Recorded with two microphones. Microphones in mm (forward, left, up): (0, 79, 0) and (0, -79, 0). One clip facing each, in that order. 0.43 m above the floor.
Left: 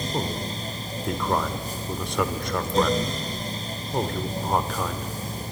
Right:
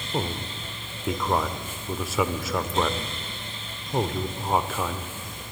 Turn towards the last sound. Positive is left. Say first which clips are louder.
# right 3 dB
turn(degrees=-5)  # may be behind; listen again after turning